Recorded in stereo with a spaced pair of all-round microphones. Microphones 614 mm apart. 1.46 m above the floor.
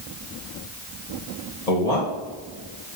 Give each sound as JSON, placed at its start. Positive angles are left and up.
{"t": 1.7, "sound": "a man speaking", "side_deg": 80, "distance_m": 2.5}